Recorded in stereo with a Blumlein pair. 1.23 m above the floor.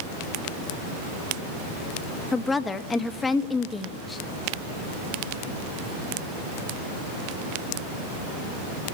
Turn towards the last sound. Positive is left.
turn(degrees=15)